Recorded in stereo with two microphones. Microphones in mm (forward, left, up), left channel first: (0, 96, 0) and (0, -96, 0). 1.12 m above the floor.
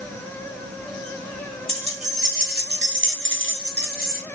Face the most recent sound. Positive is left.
turn(degrees=-45)  # may be behind; listen again after turning